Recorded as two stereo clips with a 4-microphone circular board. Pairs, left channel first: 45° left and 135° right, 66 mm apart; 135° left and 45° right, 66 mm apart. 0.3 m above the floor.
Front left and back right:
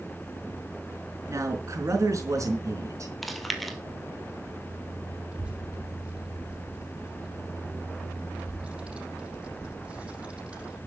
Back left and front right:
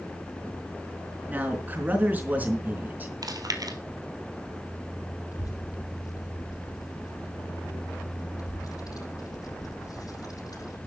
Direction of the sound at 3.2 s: 45° right.